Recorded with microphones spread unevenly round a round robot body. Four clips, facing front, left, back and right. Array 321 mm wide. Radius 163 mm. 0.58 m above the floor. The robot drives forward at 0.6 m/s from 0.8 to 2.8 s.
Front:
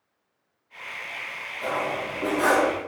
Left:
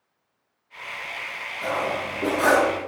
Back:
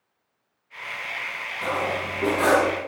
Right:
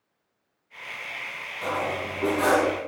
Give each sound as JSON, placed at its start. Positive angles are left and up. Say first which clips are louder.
{"t": 1.6, "sound": "cutlery clinking", "louder": "left 2 dB, back 1 dB", "azimuth_deg": -175, "distance_m": 3.0}